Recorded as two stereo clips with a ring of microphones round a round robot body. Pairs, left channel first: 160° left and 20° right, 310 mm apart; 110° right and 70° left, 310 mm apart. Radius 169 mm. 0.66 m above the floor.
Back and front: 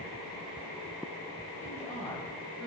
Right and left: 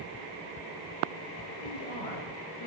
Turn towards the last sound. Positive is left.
turn(degrees=-115)